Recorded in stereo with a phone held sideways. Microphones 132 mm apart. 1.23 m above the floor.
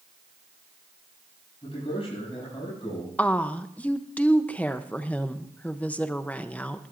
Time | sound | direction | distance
1.6 | a man speaking | 50° left (ahead or behind) | 8 m
3.2 | a woman speaking | 10° left (ahead or behind) | 0.7 m